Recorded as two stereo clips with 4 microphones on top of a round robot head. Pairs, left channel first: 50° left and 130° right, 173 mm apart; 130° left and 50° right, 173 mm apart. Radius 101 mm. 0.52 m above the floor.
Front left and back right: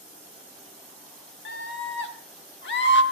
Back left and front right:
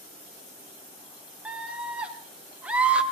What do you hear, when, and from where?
1.4 s a scream: 35° left, 3 m